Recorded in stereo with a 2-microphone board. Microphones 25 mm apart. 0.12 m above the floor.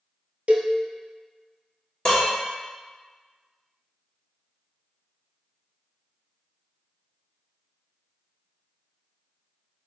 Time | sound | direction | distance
0.5 | a cowbell | 65° right (ahead or behind) | 0.7 m
2.0 | dishes clattering | 35° left (ahead or behind) | 1.3 m